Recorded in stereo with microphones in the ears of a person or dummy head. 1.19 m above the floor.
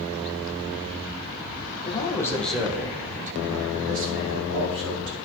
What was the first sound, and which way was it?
A man speaking, 25° left (ahead or behind).